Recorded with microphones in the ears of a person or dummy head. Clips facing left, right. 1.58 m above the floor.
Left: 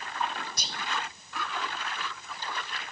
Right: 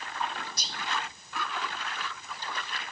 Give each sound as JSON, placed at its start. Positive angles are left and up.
{"t": 0.6, "sound": "whispering", "side_deg": 50, "distance_m": 0.6}